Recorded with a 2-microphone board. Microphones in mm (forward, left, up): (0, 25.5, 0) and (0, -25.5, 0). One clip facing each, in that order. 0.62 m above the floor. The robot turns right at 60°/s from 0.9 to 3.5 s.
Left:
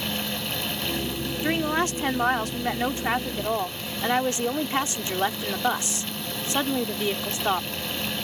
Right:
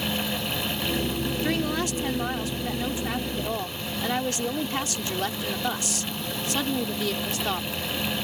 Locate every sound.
1.4 s a woman speaking: 25° left; by 7.7 s 150° left